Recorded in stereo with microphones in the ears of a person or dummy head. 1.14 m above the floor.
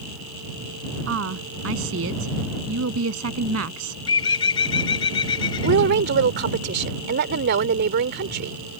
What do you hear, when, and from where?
1.1 s a woman speaking: 80° right; by 4.0 s 90° right
4.1 s a bird: 25° left (ahead or behind)
5.6 s a woman speaking: 55° right (ahead or behind)